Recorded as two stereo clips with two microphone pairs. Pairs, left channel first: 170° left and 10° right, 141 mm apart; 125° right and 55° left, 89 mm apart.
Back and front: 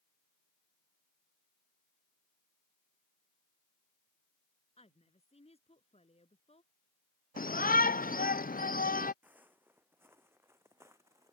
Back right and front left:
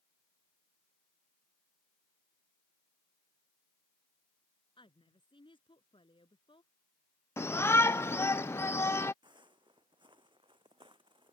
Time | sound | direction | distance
4.8 | a woman speaking | 145° right | ?
7.4 | a shout | 170° left | ?
9.2 | footsteps | 70° left | ?